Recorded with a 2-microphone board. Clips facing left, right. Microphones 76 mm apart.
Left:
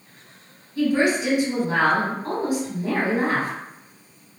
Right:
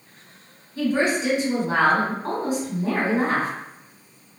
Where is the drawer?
I don't hear a drawer.